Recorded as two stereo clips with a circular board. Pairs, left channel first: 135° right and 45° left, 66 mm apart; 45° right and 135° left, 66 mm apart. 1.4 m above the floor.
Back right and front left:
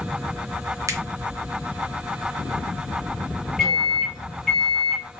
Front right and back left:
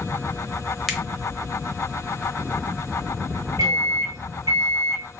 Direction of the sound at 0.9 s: 50° left.